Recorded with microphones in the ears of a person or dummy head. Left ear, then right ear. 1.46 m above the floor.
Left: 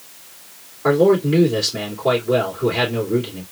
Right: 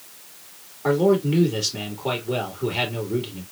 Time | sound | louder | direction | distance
0.8 | a man speaking | left 5 dB | 20° right (ahead or behind) | 2.5 m